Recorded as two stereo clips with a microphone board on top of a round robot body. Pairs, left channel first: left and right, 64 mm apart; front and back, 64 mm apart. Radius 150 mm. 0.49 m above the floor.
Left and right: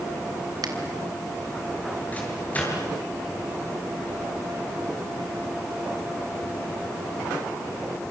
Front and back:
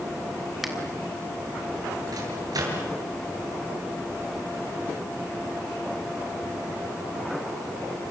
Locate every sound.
0.6 s a finger snap: 95° right, 3.5 m
2.1 s a microwave: 155° left, 7 m